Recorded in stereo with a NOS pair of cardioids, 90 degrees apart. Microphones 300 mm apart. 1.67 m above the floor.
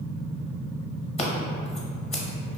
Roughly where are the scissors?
Ahead.